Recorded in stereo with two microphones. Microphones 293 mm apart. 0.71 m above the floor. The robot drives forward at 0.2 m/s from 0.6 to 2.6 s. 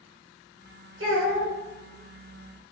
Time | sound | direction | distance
1.0 | a child speaking | 45° right (ahead or behind) | 1.1 m